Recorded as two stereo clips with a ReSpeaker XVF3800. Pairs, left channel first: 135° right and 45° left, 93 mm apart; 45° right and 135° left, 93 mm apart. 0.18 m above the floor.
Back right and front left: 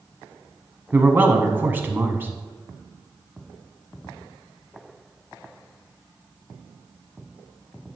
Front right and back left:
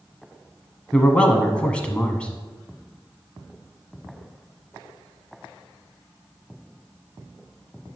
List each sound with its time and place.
0.9 s a man speaking: 15° left, 1.1 m